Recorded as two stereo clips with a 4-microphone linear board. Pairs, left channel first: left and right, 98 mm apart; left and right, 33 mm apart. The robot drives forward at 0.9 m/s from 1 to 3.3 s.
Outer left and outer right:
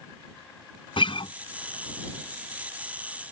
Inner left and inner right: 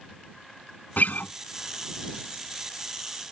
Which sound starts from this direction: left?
A guitar, at 1.0 s.